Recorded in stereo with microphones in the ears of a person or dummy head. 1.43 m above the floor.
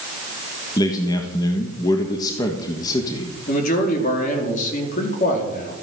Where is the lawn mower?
I don't hear a lawn mower.